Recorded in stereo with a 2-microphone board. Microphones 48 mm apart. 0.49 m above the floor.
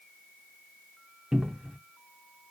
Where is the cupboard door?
15° right (ahead or behind), 0.6 m.